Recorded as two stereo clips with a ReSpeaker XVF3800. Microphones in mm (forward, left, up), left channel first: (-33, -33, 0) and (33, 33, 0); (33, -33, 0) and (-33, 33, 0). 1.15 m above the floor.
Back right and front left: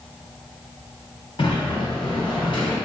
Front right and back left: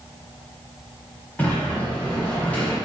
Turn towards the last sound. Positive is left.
turn(degrees=-120)